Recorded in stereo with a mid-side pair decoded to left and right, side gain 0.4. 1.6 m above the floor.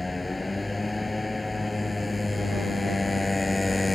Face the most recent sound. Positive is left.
turn(degrees=15)